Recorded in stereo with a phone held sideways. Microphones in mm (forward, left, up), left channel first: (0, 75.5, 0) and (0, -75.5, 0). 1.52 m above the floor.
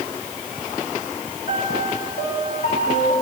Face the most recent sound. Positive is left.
turn(degrees=90)